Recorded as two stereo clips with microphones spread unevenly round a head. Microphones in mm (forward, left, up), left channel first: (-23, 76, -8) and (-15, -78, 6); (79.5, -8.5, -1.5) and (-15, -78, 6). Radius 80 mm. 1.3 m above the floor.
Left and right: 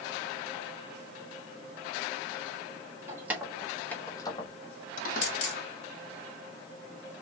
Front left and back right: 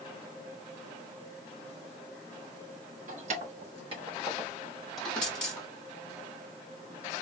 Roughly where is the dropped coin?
Behind left.